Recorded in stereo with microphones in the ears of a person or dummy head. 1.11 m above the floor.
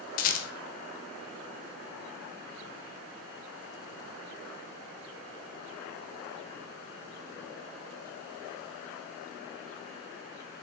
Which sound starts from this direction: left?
A rattle, at 0.2 s.